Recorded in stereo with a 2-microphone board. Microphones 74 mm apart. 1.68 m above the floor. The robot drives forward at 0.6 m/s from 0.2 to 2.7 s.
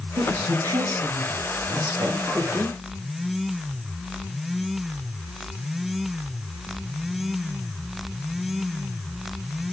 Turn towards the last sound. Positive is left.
turn(degrees=-65)  # may be behind; listen again after turning